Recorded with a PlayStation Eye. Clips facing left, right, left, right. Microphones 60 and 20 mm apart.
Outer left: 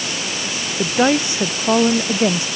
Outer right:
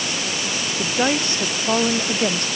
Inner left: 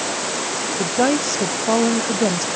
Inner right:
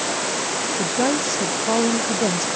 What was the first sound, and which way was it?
A woman speaking, 15° left (ahead or behind).